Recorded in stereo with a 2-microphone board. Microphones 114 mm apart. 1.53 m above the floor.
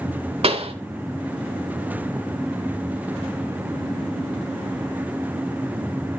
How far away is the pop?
About 2 m.